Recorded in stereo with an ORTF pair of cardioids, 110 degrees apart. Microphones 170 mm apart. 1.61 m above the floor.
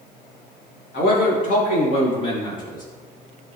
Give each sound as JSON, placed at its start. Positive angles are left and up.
{"t": 0.9, "sound": "a man speaking", "azimuth_deg": 65, "distance_m": 3.0}